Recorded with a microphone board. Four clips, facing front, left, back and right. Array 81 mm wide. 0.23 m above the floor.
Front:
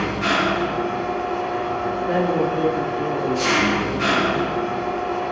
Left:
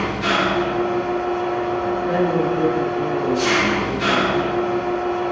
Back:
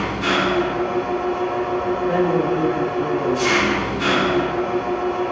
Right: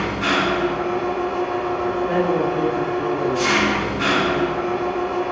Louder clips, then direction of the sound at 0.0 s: Left 1 dB, back 1 dB; 75° right.